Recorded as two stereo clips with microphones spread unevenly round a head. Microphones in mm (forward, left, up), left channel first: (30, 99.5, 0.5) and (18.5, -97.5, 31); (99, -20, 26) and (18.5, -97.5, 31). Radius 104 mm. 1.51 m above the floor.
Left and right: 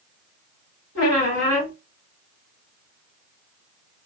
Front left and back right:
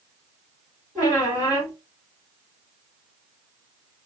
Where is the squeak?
125° left, 1.7 m.